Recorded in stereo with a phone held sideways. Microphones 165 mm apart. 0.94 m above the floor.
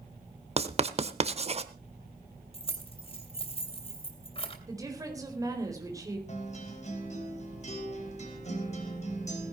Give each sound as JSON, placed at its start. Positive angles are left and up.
{"t": 0.6, "sound": "writing", "side_deg": -40, "distance_m": 0.9}
{"t": 2.5, "sound": "keys jangling", "side_deg": 35, "distance_m": 2.5}
{"t": 4.7, "sound": "a woman speaking", "side_deg": -20, "distance_m": 4.0}
{"t": 6.3, "sound": "a guitar", "side_deg": 45, "distance_m": 3.5}